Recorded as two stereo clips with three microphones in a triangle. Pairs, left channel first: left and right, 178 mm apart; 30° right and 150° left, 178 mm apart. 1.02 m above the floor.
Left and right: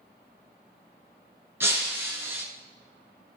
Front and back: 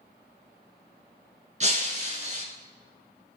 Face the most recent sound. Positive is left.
turn(degrees=-165)